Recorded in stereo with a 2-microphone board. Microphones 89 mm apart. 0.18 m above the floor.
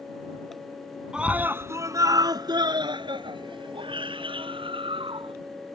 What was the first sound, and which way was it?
A scream, 10° right (ahead or behind).